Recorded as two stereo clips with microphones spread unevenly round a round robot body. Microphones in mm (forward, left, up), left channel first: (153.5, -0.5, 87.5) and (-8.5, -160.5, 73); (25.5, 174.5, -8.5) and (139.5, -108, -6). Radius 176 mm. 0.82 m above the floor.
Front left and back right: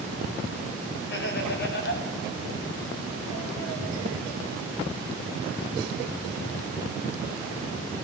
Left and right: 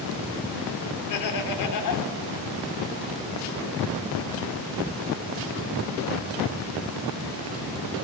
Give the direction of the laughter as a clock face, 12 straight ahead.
9 o'clock.